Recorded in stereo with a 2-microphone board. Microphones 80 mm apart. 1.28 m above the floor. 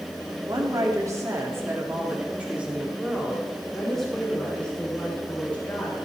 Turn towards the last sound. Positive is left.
turn(degrees=20)  # may be behind; listen again after turning